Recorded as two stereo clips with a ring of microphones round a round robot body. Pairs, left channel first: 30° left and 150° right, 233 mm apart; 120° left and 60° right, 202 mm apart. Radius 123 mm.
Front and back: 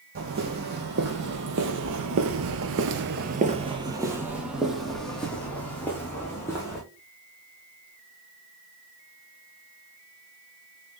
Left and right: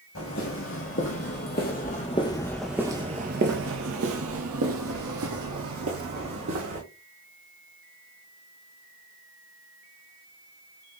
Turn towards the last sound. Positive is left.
turn(degrees=-50)